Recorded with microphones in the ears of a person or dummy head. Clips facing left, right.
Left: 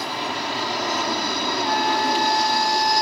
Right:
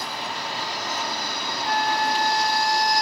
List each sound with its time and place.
0.0 s an aircraft: 55° left (ahead or behind)
1.6 s a flute: 65° right (ahead or behind)